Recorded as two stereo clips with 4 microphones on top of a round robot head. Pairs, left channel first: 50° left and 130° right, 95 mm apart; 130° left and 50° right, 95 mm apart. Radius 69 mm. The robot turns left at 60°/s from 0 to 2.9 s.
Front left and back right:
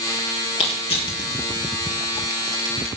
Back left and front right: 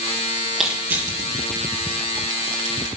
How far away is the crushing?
About 3.5 m.